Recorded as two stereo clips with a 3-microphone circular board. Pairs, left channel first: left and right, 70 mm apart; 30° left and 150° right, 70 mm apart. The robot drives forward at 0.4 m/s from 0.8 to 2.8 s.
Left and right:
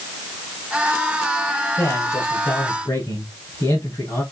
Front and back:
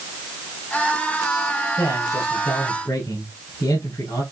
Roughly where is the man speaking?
Ahead left.